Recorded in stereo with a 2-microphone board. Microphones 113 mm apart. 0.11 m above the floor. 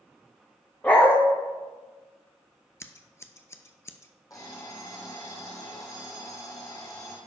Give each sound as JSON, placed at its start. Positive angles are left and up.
{"t": 0.8, "sound": "a dog barking", "side_deg": 15, "distance_m": 2.5}
{"t": 2.8, "sound": "scissors", "side_deg": 25, "distance_m": 0.6}
{"t": 4.3, "sound": "an alarm clock", "side_deg": 35, "distance_m": 3.0}